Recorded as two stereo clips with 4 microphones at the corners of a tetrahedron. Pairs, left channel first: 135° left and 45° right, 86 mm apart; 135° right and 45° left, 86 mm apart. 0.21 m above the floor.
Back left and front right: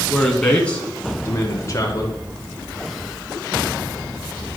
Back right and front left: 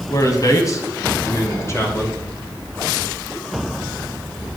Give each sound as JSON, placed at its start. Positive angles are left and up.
{"t": 0.1, "sound": "a man speaking", "azimuth_deg": -135, "distance_m": 2.0}